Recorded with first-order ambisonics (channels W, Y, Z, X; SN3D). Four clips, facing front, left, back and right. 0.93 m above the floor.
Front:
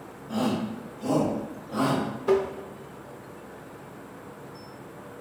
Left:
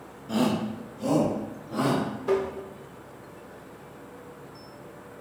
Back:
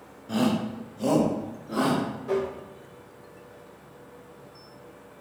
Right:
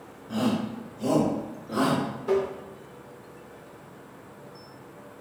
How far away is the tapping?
About 0.7 m.